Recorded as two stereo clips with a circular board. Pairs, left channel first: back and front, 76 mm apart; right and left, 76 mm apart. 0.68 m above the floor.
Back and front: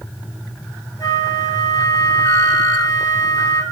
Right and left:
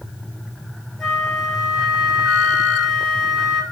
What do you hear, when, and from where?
1.0 s a flute: 175° right, 2 m